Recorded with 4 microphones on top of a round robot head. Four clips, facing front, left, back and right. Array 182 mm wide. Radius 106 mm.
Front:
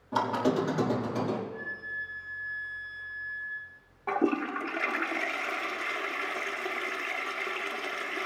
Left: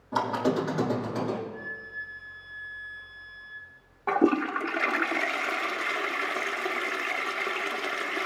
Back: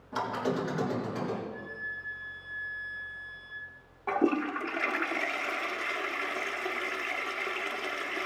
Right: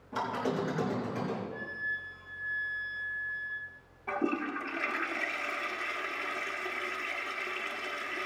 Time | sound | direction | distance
0.1 | a squeak | 50° left | 1.7 m
1.5 | a flute | 90° right | 6 m
4.1 | a toilet flushing | 90° left | 0.7 m